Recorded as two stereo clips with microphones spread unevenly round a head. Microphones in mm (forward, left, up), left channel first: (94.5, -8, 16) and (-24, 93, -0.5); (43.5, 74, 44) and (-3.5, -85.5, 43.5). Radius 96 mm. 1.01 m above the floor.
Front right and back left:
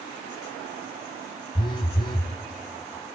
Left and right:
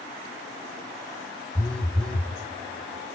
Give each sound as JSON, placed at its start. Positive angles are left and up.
{"t": 1.6, "sound": "a phone buzzing", "azimuth_deg": -10, "distance_m": 0.8}